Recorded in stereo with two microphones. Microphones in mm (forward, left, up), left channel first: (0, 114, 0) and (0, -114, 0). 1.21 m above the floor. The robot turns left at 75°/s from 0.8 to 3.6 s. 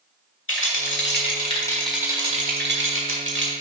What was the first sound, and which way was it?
A rattle, 80° left.